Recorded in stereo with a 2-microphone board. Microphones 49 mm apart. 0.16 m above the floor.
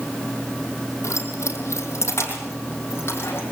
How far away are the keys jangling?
About 4.5 m.